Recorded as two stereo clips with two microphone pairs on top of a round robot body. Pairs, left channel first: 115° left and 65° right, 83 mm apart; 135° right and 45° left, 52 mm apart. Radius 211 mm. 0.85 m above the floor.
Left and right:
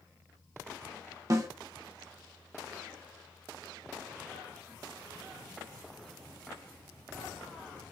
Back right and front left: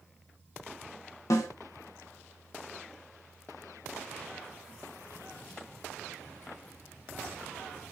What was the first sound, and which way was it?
A snare drum, 115° right.